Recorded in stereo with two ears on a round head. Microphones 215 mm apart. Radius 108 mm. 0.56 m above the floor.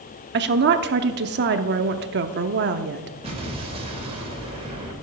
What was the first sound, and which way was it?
A woman speaking, 45° right (ahead or behind).